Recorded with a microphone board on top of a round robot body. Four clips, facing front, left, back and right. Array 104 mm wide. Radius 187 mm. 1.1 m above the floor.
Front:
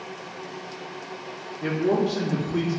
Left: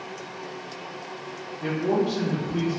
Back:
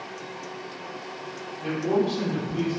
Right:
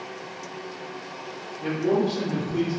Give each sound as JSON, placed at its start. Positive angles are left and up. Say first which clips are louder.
{"t": 1.6, "sound": "a man speaking", "louder": "right 1 dB, front 1 dB", "azimuth_deg": 15, "distance_m": 0.8}